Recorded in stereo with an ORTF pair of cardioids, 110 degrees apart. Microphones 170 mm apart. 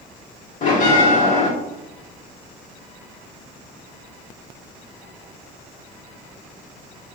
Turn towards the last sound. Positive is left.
turn(degrees=50)